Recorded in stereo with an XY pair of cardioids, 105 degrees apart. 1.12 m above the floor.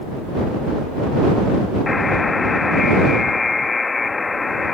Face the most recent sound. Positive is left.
turn(degrees=25)